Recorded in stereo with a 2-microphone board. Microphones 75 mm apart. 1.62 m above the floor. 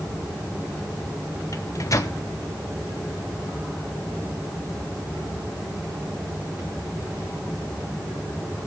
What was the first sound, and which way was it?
A microwave, 50° left (ahead or behind).